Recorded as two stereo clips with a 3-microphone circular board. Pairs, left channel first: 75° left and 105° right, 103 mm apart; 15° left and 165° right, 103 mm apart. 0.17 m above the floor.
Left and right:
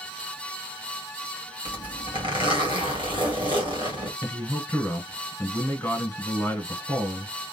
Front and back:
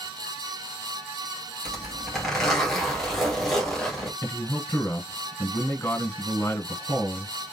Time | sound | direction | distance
1.6 | a zipper | 70° right | 2.5 m
4.2 | a man speaking | 30° left | 1.4 m